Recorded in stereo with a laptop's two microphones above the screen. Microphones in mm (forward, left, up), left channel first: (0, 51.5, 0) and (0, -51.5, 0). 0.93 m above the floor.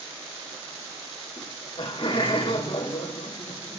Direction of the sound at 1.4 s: 50° left (ahead or behind).